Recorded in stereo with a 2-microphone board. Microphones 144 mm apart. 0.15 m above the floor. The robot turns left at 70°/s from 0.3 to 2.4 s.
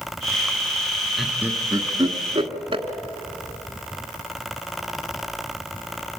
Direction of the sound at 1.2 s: Centre (ahead or behind).